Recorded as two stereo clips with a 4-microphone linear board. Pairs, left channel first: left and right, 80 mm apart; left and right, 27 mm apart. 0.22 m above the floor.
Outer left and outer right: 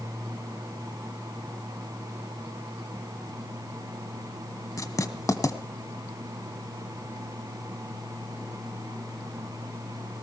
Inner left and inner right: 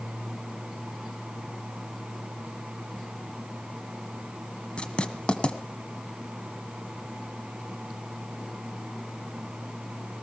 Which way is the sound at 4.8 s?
40° left (ahead or behind).